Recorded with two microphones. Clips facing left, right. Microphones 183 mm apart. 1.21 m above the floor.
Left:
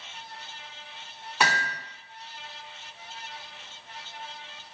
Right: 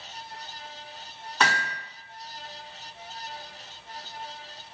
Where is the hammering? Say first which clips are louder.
Even; 10° left (ahead or behind), 1.1 m.